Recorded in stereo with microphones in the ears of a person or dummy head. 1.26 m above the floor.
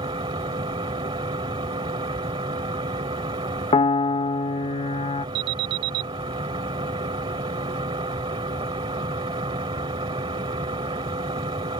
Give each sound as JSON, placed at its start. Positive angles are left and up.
{"t": 0.0, "sound": "a machine running", "side_deg": -20}
{"t": 3.7, "sound": "a piano", "side_deg": 25}
{"t": 5.3, "sound": "an alarm", "side_deg": -60}